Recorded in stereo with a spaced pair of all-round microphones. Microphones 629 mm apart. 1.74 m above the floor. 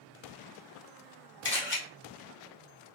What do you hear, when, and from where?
1.4 s a camera shutter: 20° left (ahead or behind), 0.8 m